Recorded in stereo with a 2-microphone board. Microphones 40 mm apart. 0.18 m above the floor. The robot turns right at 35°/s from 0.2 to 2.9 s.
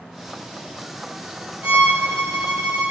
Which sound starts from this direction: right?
A violin, at 1.6 s.